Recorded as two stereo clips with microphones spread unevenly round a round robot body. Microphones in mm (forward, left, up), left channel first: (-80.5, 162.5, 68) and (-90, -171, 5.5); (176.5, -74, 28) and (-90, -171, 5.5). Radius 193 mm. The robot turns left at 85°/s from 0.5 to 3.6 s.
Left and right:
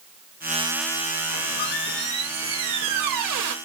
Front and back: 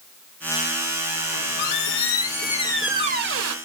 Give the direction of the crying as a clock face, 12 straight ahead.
No crying in this recording.